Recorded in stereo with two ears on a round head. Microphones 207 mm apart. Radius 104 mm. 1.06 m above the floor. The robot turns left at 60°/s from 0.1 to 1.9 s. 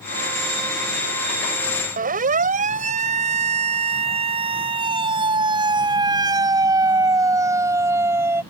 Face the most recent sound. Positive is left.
turn(degrees=-10)  # may be behind; listen again after turning